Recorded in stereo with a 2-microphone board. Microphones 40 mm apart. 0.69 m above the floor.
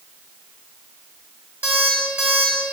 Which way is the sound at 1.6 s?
45° right (ahead or behind).